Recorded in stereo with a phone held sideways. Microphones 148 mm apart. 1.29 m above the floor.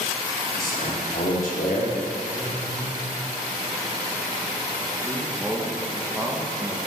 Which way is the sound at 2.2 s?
75° right (ahead or behind).